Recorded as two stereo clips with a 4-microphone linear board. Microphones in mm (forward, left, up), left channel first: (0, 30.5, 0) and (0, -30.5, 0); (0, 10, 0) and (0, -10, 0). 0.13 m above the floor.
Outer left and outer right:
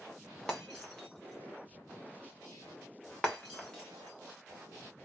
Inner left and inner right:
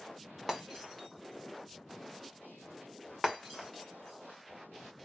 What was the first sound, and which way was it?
Breaking glass, 10° left (ahead or behind).